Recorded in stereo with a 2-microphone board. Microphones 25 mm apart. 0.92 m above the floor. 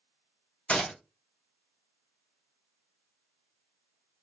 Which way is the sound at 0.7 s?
60° left (ahead or behind).